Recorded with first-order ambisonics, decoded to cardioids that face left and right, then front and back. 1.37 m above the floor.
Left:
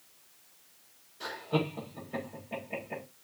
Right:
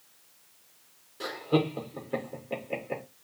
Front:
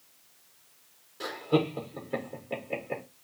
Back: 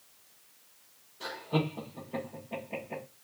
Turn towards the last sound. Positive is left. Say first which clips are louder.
# right 4 dB, front 5 dB
turn(degrees=-45)